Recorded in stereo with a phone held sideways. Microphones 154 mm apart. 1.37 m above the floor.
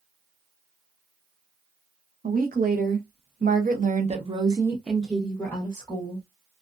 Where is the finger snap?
I don't hear a finger snap.